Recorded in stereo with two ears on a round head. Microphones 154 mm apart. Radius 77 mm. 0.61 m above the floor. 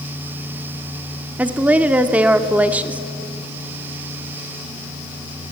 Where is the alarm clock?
I don't hear an alarm clock.